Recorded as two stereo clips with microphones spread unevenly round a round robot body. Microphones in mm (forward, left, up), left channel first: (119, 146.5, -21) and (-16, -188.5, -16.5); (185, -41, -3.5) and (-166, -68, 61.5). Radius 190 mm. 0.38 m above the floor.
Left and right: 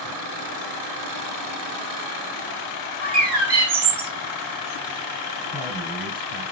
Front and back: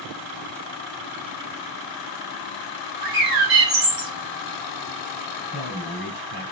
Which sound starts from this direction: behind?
A bird, at 3.0 s.